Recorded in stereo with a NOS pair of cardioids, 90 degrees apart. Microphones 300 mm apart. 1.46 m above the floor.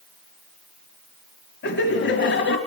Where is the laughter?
40° left, 2 m.